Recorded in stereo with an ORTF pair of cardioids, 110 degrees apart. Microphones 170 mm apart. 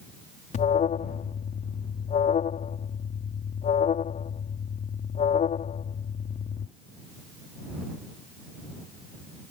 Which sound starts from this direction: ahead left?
An alarm, at 0.5 s.